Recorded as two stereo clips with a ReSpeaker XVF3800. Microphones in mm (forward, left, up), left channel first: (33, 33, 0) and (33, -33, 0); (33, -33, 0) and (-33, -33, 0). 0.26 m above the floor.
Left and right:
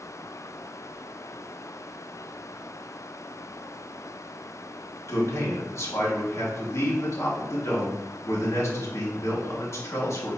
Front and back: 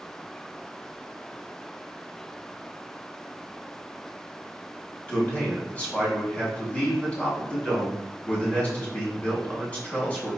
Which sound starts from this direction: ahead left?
A man speaking, at 5.1 s.